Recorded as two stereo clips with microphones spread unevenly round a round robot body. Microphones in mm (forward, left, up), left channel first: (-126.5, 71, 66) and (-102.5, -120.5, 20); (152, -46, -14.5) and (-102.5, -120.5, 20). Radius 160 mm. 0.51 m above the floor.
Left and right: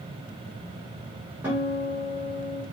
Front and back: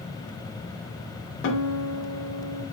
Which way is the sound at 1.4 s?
10° right.